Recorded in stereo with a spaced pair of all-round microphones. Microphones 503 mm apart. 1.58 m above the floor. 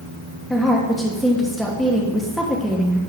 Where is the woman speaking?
Centre (ahead or behind), 1.0 m.